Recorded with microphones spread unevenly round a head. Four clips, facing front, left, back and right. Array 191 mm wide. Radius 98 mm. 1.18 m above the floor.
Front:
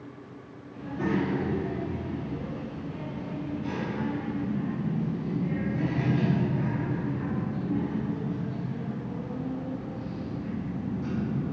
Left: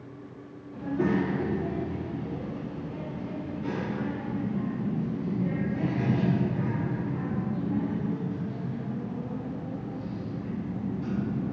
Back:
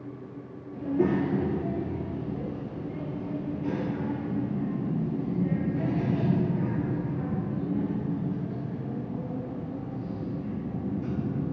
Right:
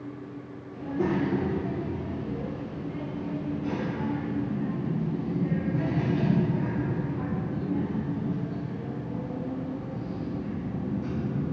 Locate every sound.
0.7 s a child speaking: 135° left, 1.7 m; by 11.5 s 125° left, 7.5 m